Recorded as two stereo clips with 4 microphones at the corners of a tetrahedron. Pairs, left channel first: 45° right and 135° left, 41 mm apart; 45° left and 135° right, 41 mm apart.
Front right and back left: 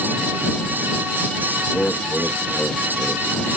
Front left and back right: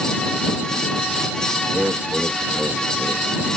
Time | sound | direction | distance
1.7 | laughter | 105° right | ?